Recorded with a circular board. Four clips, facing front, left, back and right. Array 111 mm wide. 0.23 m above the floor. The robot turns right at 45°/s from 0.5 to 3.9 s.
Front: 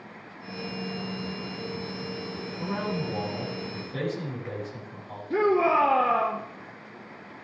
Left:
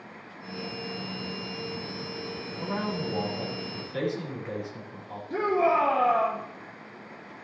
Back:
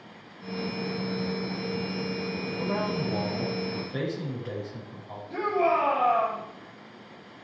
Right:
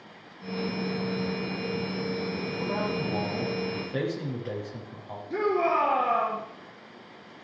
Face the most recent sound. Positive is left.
turn(degrees=-10)